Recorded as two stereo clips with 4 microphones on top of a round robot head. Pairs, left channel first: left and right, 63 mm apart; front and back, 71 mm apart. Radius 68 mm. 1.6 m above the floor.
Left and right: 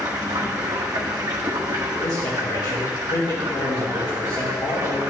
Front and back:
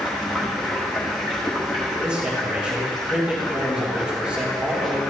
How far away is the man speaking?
About 2 m.